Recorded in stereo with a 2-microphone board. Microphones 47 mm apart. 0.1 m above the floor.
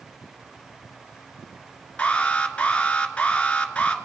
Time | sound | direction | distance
2.0 | an alarm | 25° left (ahead or behind) | 1.6 m